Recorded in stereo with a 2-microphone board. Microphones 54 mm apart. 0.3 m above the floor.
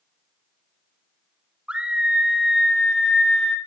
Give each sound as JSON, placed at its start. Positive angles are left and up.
{"t": 1.7, "sound": "a scream", "side_deg": -20, "distance_m": 2.0}